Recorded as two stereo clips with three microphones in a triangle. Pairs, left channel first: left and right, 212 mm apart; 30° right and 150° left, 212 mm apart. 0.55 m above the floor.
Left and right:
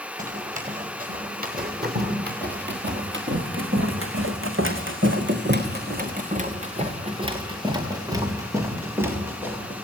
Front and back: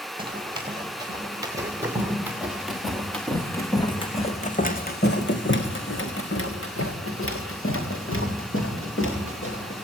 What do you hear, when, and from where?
0.2 s running footsteps: 140° right, 5 m; by 9.8 s 5° right, 5.5 m